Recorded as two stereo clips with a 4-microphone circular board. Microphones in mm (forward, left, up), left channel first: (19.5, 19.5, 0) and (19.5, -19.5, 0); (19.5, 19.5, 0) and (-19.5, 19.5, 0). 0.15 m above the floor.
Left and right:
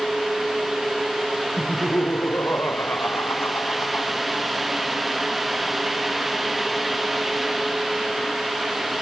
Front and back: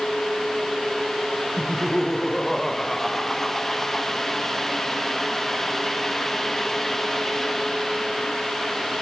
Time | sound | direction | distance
1.6 | laughter | 85° left | ?